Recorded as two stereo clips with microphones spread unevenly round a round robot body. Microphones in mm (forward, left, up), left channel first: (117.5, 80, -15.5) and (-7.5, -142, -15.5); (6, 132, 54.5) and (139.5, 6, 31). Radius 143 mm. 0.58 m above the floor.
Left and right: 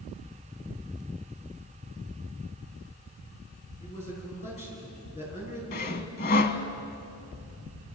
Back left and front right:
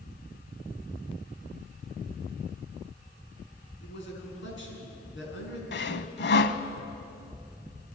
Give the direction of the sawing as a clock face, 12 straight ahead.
8 o'clock.